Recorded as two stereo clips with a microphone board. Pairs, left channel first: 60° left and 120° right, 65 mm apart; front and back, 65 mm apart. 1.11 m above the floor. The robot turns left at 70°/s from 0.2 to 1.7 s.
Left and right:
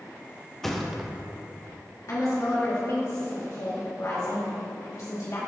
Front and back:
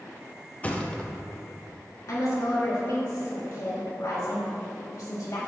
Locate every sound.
0.6 s a thud: 15° right, 0.6 m; by 1.1 s 50° right, 0.6 m
2.1 s a woman speaking: 25° left, 2 m